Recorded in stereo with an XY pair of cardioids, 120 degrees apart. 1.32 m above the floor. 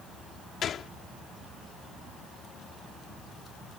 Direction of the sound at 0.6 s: 50° left.